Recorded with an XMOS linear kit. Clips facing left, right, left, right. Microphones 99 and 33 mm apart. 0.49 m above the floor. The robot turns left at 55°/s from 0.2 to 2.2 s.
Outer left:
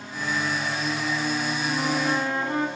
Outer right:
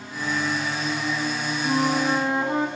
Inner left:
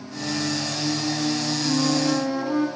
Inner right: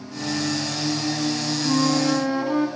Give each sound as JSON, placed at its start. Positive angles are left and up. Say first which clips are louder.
{"t": 1.6, "sound": "a flute", "louder": "outer right 5 dB, inner right 2 dB", "azimuth_deg": -130, "distance_m": 4.0}